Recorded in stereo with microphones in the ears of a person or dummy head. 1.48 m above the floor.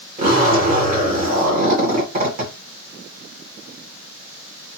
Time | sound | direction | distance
0.2 | a zipper | 40° right (ahead or behind) | 1.4 m